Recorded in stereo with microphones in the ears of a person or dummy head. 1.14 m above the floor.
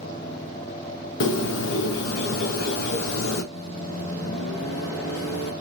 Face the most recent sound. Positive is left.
turn(degrees=85)